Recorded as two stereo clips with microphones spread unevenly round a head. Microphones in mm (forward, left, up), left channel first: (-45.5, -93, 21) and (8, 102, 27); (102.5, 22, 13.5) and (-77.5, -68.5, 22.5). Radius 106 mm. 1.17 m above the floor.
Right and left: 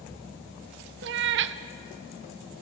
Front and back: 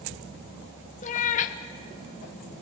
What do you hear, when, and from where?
1.0 s a cat meowing: 80° left, 0.6 m